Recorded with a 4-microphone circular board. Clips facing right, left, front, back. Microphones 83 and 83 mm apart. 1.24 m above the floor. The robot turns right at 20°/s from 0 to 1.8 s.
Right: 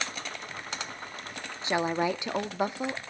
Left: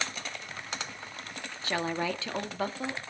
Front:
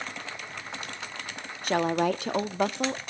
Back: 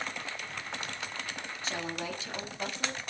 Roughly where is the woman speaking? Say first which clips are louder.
Right 4 dB, front 13 dB; ahead right.